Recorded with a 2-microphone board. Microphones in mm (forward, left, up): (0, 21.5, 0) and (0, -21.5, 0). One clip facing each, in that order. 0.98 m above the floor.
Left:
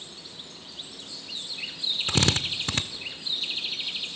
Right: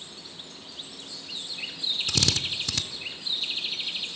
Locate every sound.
2.1 s a drill: 35° left (ahead or behind), 0.9 m